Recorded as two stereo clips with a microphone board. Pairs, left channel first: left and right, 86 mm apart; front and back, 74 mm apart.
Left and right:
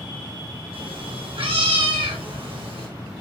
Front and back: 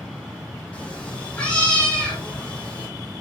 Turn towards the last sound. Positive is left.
turn(degrees=-75)